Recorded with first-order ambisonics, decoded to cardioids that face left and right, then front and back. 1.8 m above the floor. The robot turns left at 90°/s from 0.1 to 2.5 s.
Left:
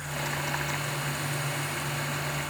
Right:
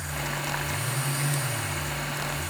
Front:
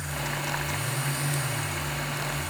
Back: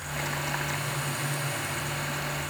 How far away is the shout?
No shout in this recording.